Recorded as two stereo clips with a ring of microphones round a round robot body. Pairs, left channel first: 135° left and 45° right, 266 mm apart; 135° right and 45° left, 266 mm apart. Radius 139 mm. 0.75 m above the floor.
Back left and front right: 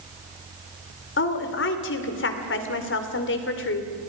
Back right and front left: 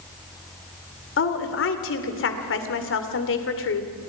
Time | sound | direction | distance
1.2 | a woman speaking | straight behind | 2.5 m